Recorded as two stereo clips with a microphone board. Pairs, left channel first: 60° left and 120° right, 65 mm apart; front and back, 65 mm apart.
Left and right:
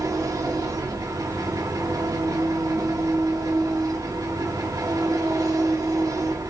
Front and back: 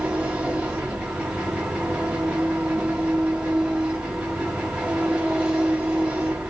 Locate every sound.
0.0 s an engine running: 105° right, 3 m